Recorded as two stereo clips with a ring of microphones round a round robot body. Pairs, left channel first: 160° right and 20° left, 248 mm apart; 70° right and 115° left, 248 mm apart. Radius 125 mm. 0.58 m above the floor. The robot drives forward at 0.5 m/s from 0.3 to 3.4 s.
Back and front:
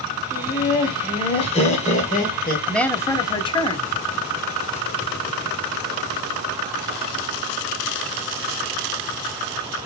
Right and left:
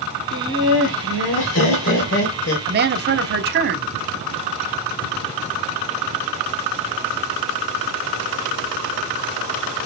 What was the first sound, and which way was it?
Laughter, 80° right.